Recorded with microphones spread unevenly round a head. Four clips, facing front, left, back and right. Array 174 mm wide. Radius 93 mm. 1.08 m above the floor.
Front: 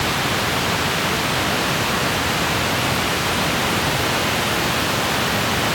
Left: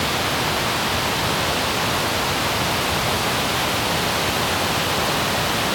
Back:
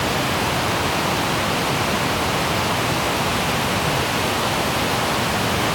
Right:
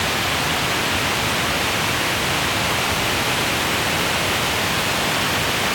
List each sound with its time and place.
Only background noise.